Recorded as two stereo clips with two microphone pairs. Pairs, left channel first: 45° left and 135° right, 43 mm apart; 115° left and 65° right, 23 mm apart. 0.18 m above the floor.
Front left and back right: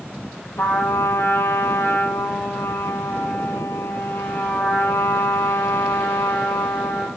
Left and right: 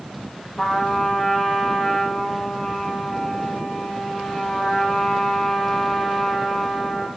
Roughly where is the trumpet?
Ahead left.